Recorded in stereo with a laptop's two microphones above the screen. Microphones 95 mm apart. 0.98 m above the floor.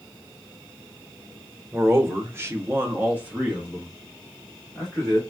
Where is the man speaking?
25° right (ahead or behind), 0.9 m; by 5.2 s centre (ahead or behind), 1.6 m.